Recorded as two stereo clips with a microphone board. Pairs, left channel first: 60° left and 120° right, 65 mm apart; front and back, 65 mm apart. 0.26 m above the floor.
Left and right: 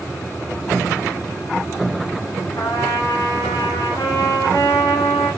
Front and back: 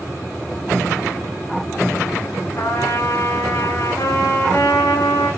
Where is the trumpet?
35° left, 8 m.